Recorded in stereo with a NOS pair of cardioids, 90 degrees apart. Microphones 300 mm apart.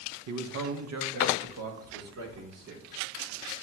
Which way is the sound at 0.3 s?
70° right.